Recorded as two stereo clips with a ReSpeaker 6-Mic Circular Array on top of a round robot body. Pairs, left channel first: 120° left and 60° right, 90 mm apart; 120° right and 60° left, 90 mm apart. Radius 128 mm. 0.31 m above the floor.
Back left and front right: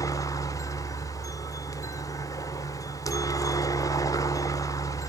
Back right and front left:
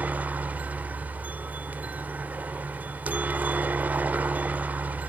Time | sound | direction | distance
0.0 | a helicopter | 125° left | ?